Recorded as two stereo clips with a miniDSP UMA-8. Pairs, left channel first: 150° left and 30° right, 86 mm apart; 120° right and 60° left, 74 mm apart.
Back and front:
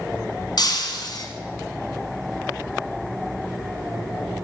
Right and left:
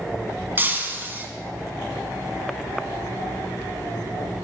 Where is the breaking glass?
120° left, 1.5 m.